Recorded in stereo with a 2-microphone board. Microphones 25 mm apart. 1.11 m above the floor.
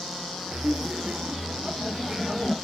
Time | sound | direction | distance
0.5 | laughter | 60° right (ahead or behind) | 0.5 m